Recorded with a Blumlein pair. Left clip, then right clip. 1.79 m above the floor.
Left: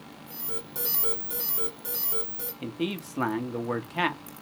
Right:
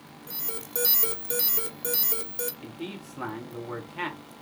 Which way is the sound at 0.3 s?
45° right.